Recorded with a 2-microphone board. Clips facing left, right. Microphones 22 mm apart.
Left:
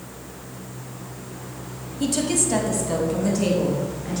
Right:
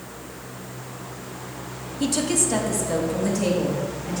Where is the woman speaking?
10° right (ahead or behind), 1.0 m; by 4.2 s 20° left (ahead or behind), 3 m.